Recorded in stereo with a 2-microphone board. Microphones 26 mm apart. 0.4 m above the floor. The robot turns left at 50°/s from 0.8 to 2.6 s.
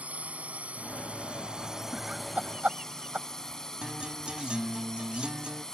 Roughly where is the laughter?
Right.